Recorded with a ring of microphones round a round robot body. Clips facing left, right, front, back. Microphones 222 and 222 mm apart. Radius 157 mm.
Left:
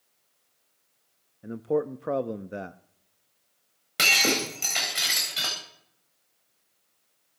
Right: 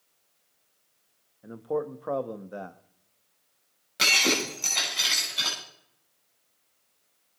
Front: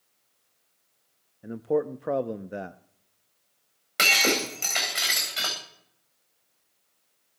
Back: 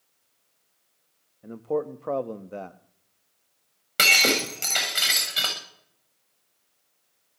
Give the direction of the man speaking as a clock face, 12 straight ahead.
10 o'clock.